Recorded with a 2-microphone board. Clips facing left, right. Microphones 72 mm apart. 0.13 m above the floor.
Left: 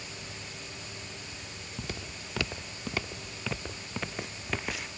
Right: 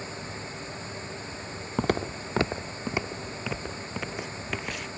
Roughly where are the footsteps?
Right.